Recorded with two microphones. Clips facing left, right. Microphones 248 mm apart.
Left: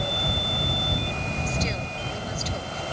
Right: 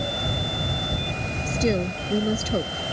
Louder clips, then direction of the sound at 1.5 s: Right 8 dB; 55° right (ahead or behind).